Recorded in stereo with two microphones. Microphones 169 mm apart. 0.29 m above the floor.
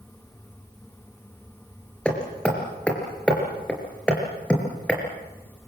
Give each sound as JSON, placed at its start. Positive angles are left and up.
{"t": 2.0, "sound": "hammering", "side_deg": 5, "distance_m": 4.0}